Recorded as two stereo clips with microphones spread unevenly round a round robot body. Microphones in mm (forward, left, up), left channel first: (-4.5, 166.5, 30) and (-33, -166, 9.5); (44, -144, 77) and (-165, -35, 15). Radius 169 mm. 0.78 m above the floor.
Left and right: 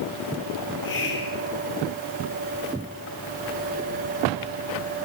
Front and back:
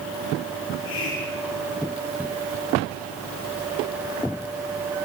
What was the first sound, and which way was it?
A hiss, 25° left.